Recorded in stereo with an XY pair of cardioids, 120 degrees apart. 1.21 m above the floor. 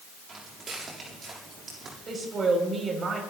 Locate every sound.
0.3 s footsteps: 40° right, 7 m
2.1 s a woman speaking: 40° right, 5 m